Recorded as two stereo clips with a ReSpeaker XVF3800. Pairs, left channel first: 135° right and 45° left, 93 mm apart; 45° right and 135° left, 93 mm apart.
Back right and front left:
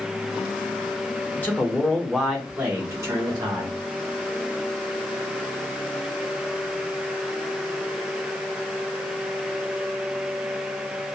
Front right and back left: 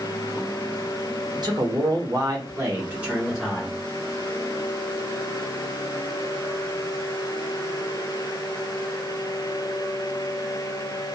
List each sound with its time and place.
1.3 s a man speaking: 160° left, 1.1 m; by 3.8 s 40° left, 0.9 m